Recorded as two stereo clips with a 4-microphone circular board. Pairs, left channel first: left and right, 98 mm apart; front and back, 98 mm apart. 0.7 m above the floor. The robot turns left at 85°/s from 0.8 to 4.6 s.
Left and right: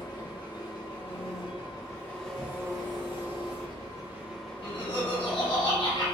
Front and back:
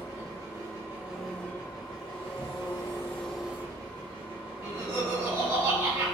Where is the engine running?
130° left, 1.1 m; by 6.2 s 165° left, 1.1 m.